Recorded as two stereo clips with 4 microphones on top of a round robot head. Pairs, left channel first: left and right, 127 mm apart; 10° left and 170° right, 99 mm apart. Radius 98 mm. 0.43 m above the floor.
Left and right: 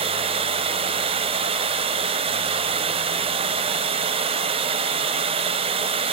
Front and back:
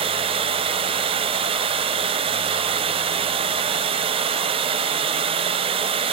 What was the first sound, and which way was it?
Running water, 135° right.